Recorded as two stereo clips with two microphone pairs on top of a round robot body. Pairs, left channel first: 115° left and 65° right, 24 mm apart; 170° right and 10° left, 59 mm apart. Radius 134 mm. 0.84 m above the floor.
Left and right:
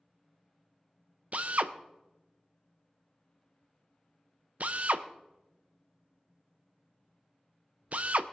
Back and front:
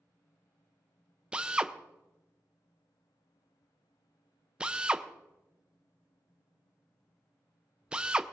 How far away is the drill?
About 0.7 m.